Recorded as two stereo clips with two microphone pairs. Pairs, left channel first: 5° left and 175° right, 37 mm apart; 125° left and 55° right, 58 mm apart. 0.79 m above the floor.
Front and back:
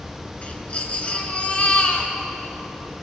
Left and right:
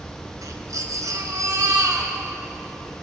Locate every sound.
0.4 s a baby crying: 50° right, 1.7 m